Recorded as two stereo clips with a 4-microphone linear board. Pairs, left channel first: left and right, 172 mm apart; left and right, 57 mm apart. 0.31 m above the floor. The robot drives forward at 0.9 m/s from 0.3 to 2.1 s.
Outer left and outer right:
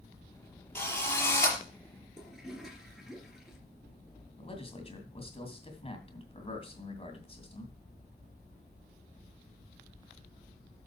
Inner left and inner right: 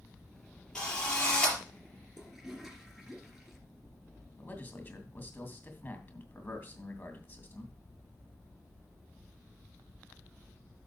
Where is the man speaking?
35° left (ahead or behind), 2.5 m.